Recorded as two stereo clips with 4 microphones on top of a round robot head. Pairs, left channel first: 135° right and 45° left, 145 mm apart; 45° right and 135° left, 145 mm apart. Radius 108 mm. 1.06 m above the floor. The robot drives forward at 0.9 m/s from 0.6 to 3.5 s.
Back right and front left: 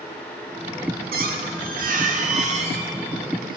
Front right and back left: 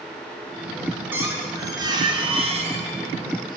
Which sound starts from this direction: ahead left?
A squeak, at 1.1 s.